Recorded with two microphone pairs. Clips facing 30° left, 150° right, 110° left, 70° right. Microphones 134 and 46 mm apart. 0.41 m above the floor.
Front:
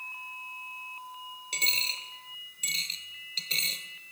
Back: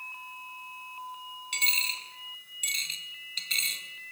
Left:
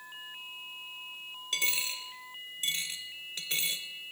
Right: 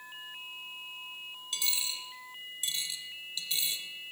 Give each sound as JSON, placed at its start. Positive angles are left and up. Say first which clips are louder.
{"t": 1.5, "sound": "a dropped coin", "louder": "back 1 dB, left 4 dB", "azimuth_deg": 75, "distance_m": 0.8}